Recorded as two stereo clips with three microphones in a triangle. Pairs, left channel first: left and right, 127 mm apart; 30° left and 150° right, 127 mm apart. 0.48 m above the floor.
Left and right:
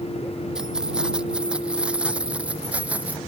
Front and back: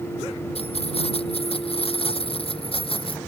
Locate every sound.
0.6 s keys jangling: 5° right; by 3.2 s 10° right